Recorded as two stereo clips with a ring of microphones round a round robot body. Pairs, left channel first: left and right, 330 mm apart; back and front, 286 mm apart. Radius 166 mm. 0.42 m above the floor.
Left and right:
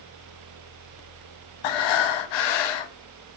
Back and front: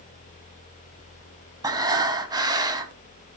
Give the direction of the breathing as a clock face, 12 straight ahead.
9 o'clock.